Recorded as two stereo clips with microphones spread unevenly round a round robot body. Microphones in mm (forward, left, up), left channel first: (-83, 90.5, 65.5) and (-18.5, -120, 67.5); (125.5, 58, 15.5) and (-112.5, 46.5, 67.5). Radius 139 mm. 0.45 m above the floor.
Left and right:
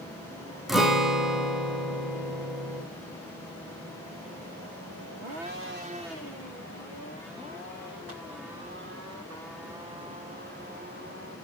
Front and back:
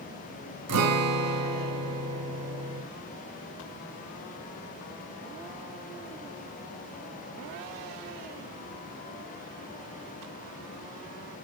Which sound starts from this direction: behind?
A guitar, at 0.7 s.